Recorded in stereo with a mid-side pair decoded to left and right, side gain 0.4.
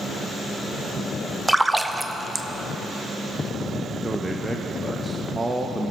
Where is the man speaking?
20° right, 1.0 m.